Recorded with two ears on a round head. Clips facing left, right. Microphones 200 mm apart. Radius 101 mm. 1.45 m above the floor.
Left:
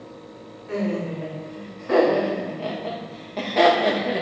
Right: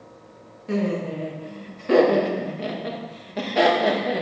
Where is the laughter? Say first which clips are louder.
Right 1 dB; 55° right (ahead or behind), 3 m; by 4.2 s centre (ahead or behind), 2.5 m.